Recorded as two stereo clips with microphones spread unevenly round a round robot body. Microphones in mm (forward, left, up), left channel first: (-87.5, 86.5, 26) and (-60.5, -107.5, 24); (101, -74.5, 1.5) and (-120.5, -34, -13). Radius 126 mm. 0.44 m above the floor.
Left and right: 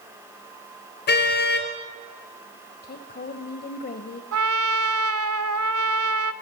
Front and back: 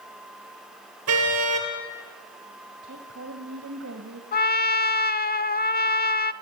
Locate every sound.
1.1 s a car horn: 135° left, 3.5 m
2.8 s a woman speaking: 130° left, 2 m
4.3 s a trumpet: 60° right, 0.7 m